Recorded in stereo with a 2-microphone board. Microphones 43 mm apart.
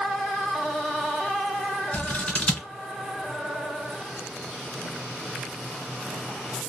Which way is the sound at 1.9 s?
35° left (ahead or behind).